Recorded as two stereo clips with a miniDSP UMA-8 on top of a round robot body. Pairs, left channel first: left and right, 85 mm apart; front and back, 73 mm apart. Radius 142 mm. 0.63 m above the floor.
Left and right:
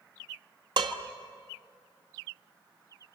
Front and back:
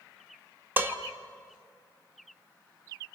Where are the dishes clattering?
115° right, 1.5 m.